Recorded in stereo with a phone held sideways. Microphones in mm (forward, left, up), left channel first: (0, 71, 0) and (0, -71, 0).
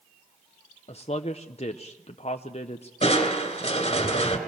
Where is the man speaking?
45° left (ahead or behind), 0.7 m.